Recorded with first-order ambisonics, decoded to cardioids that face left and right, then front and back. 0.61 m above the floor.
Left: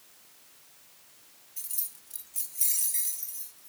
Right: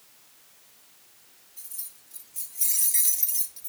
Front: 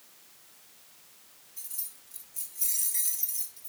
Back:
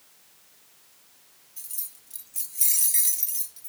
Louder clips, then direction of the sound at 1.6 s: Left 4 dB, back 3 dB; 125° left.